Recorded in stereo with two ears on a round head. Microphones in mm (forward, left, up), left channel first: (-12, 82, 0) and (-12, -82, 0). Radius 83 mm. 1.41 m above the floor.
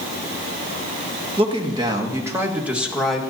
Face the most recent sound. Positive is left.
turn(degrees=0)  # may be behind; listen again after turning